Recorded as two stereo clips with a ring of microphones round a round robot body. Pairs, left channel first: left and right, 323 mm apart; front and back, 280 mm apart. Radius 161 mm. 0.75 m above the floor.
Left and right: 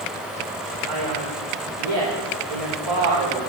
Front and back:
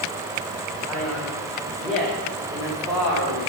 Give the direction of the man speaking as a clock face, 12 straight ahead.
3 o'clock.